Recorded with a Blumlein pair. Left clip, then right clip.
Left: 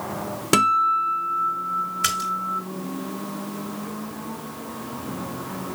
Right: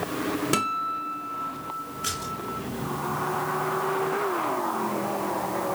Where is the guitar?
20° left, 0.5 m.